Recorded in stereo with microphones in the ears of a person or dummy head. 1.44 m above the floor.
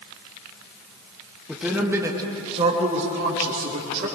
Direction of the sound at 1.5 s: 5° right (ahead or behind).